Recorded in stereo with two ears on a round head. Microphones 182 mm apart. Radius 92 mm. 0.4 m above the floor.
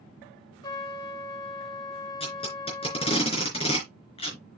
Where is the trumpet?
25° left (ahead or behind), 2 m.